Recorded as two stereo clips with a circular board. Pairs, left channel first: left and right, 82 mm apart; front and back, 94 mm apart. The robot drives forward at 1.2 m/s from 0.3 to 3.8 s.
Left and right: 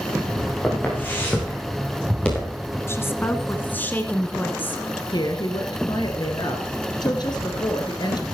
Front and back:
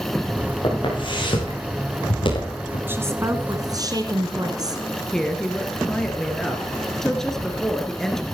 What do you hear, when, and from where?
0.6 s footsteps: 25° left, 8.5 m; by 2.8 s 10° left, 6 m
2.9 s a woman speaking: 125° left, 2 m; by 4.8 s 150° left, 2.5 m
5.1 s a woman speaking: 85° left, 2.5 m